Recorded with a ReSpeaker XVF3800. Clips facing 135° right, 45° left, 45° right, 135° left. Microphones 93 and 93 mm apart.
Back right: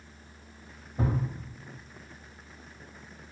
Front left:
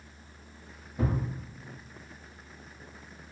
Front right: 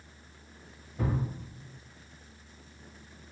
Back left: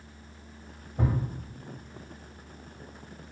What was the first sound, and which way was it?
A thud, 170° left.